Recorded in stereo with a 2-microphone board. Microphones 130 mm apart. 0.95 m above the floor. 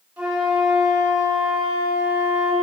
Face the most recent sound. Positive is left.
turn(degrees=-10)  # may be behind; listen again after turning